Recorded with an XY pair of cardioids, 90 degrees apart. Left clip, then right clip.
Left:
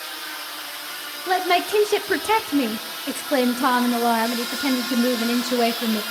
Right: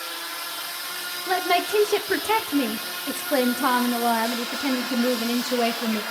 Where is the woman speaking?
20° left, 1.4 m.